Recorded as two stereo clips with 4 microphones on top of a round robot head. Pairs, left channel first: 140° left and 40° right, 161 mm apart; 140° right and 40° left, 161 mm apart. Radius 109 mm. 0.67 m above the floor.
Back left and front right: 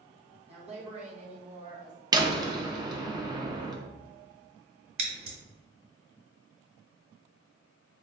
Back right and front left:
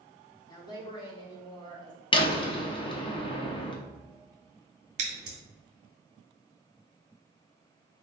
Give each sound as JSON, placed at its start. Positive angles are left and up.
{"t": 0.5, "sound": "a woman speaking", "azimuth_deg": -80, "distance_m": 1.2}
{"t": 2.1, "sound": "a door slam", "azimuth_deg": -95, "distance_m": 0.9}
{"t": 5.0, "sound": "scissors", "azimuth_deg": -5, "distance_m": 1.1}